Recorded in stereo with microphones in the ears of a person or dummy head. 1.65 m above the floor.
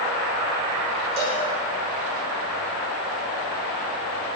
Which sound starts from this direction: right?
A cowbell, at 1.2 s.